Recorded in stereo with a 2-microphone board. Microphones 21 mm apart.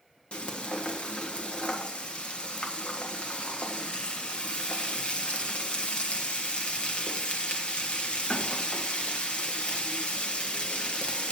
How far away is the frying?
About 1.5 m.